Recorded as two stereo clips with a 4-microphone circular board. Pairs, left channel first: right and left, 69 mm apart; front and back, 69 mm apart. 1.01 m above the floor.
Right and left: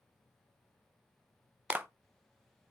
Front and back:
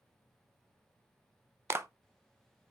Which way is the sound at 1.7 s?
145° left.